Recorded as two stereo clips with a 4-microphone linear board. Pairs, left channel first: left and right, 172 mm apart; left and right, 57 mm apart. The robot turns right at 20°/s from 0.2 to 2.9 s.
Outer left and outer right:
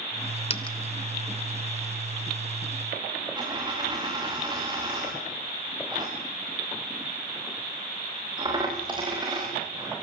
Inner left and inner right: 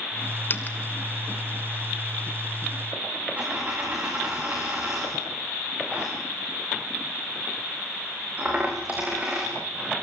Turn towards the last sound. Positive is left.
turn(degrees=-25)  # may be behind; listen again after turning